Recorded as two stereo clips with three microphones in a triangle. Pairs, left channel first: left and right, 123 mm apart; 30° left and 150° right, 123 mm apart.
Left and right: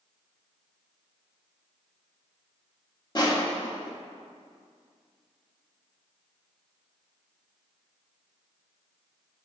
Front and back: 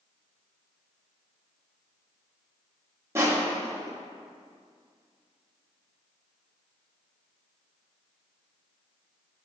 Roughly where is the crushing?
Behind left.